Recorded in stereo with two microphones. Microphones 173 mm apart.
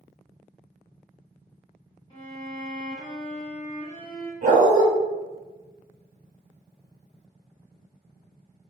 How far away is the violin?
About 0.8 m.